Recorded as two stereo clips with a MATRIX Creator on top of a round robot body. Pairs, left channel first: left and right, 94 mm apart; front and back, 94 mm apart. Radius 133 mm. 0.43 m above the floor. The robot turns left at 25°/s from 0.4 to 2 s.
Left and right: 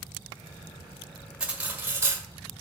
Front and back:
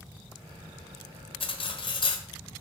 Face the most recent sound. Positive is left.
turn(degrees=-25)